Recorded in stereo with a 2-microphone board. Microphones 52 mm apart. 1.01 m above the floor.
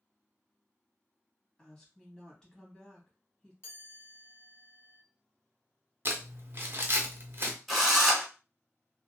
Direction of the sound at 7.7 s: Centre (ahead or behind).